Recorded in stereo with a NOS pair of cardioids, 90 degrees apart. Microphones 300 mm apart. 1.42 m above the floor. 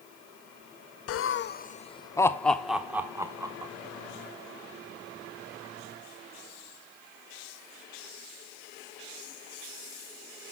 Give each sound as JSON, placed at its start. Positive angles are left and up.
{"t": 1.1, "sound": "laughter", "azimuth_deg": 55, "distance_m": 0.6}